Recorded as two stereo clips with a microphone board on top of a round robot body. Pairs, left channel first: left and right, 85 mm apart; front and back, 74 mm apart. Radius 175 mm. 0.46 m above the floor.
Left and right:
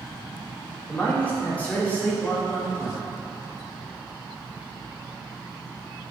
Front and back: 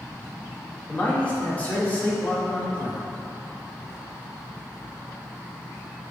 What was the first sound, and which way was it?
A man speaking, 40° left.